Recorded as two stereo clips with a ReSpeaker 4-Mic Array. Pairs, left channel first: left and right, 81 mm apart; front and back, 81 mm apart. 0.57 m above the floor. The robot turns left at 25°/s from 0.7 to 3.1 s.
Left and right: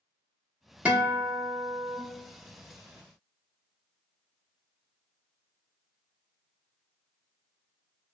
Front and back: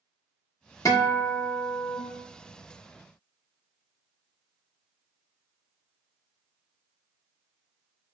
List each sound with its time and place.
0.8 s a guitar: 20° right, 0.9 m; by 2.0 s 50° right, 0.9 m